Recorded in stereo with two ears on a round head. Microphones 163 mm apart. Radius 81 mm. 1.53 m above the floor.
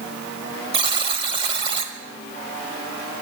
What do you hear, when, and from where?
0.7 s a buzzer: 30° right (ahead or behind), 1.5 m